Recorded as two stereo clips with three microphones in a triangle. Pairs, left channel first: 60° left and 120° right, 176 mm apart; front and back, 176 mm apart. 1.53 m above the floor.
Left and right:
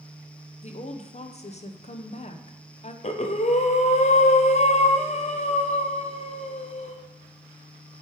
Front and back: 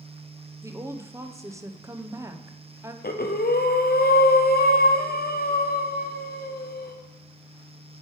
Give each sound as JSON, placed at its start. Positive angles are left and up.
{"t": 0.6, "sound": "a woman speaking", "azimuth_deg": 105, "distance_m": 0.6}
{"t": 3.0, "sound": "breathing", "azimuth_deg": 15, "distance_m": 0.6}